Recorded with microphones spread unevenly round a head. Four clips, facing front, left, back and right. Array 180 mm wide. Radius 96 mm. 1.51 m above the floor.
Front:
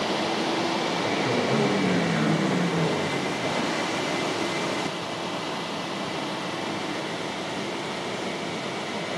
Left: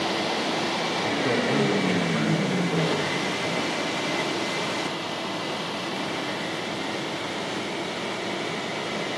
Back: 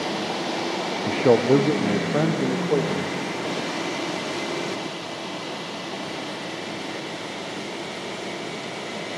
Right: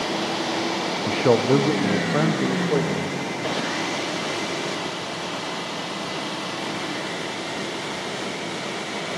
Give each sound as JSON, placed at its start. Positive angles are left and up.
{"t": 1.1, "sound": "a man speaking", "azimuth_deg": -145, "distance_m": 0.8}